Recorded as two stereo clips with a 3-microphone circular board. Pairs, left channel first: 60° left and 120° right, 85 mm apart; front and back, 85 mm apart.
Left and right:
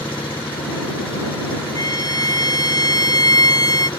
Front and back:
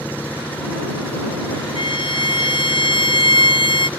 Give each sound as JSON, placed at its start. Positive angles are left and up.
{"t": 0.0, "sound": "an engine running", "azimuth_deg": 70}
{"t": 1.8, "sound": "a violin", "azimuth_deg": 20}